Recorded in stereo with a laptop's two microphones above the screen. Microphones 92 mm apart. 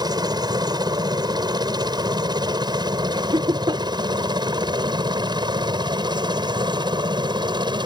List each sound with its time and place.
0.0 s a helicopter: 45° right (ahead or behind); by 7.9 s 55° right (ahead or behind)
3.1 s laughter: 60° right (ahead or behind)